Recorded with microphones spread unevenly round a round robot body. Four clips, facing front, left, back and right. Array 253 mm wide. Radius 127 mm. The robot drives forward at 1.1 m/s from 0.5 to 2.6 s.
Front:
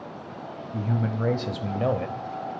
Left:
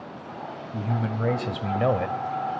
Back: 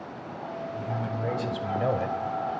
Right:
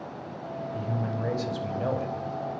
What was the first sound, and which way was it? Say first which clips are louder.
A man speaking: left 4 dB, front 6 dB; 30° left.